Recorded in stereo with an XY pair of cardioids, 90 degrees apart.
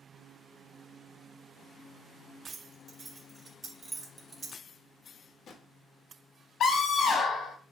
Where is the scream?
65° left, 1.2 m.